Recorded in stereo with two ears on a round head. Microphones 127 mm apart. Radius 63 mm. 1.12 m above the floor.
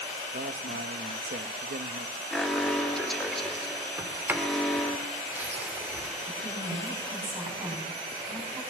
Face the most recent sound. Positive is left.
turn(degrees=-20)  # may be behind; listen again after turning